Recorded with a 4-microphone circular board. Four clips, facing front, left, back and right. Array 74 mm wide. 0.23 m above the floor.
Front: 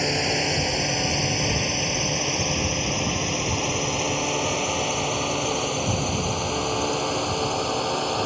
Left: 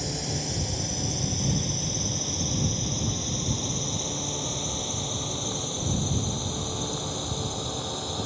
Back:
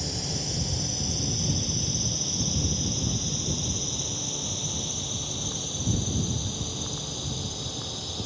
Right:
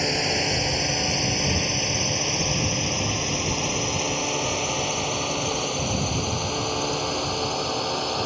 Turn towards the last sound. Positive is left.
turn(degrees=-30)